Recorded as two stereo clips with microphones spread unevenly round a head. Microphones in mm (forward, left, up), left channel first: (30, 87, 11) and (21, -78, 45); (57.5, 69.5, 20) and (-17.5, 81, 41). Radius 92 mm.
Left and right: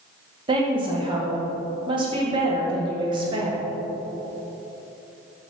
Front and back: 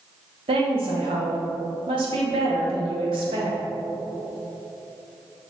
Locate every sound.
0.5 s a woman speaking: 160° right, 1.2 m